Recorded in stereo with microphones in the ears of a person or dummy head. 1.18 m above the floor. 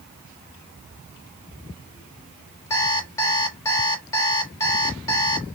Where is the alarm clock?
20° left (ahead or behind), 1.2 m.